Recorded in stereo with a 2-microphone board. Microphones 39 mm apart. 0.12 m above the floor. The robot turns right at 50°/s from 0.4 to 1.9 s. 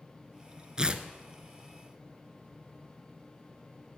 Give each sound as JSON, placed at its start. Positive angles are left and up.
{"t": 0.8, "sound": "tearing paper", "side_deg": -20, "distance_m": 0.6}